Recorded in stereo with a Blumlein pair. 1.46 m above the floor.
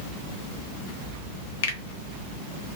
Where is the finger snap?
55° left, 1.0 m.